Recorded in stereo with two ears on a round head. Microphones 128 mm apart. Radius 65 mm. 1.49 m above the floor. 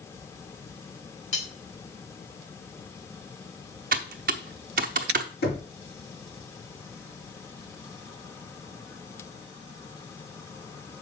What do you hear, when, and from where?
1.3 s cutlery clinking: 55° left (ahead or behind), 5 m
3.9 s typing on a keyboard: 60° right (ahead or behind), 0.9 m
5.4 s knocking: 85° left, 3 m